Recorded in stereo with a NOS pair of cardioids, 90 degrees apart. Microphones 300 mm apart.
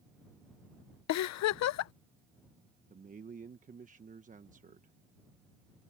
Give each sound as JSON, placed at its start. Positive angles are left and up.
{"t": 1.1, "sound": "a giggle", "azimuth_deg": 65}
{"t": 2.9, "sound": "a man speaking", "azimuth_deg": -25}